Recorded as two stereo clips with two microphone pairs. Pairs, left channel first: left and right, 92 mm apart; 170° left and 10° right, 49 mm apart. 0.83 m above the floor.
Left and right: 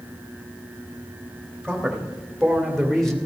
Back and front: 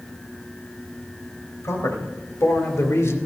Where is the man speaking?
170° left, 3 m; by 3.2 s 175° left, 1.8 m.